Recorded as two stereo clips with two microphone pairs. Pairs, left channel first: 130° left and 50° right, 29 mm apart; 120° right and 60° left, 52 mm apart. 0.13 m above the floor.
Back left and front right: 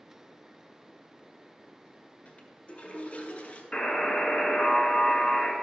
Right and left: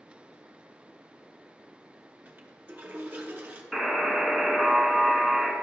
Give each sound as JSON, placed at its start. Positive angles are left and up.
{"t": 2.2, "sound": "a toilet flushing", "azimuth_deg": 105, "distance_m": 1.0}
{"t": 3.7, "sound": "a buzzer", "azimuth_deg": 150, "distance_m": 1.2}